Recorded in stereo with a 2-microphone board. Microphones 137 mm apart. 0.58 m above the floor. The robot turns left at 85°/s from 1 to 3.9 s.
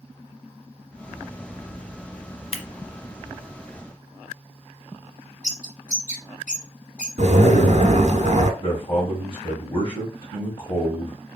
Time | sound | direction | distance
2.5 | scissors | 45° left (ahead or behind) | 0.8 m
5.4 | a bird | 80° left | 2.5 m
7.2 | a zipper | 60° right (ahead or behind) | 0.8 m
8.6 | a man speaking | 40° left (ahead or behind) | 1.9 m